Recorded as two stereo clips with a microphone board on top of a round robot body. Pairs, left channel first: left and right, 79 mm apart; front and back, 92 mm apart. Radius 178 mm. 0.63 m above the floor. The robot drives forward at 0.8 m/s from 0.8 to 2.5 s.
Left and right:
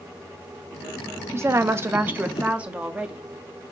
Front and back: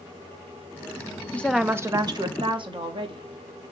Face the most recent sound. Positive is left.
turn(degrees=-165)